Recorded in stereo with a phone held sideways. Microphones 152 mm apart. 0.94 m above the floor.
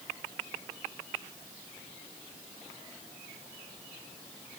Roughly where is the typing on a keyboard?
I don't hear typing on a keyboard.